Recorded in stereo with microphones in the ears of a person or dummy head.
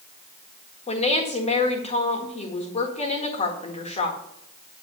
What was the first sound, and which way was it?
A woman speaking, 35° left (ahead or behind).